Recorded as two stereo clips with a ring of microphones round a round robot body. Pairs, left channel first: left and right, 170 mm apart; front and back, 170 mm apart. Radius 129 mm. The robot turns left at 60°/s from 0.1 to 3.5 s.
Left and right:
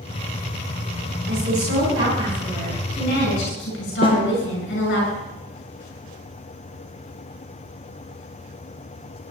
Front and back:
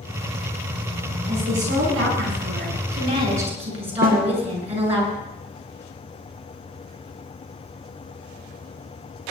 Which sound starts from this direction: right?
A woman speaking, at 1.3 s.